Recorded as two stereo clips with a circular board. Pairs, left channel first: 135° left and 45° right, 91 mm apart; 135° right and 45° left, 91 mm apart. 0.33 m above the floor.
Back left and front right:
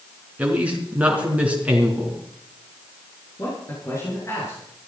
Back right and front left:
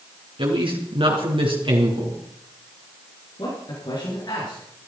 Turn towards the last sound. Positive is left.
turn(degrees=-170)